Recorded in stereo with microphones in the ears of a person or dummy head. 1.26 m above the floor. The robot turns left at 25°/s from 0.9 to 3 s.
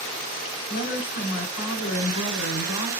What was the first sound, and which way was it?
A woman speaking, 125° left.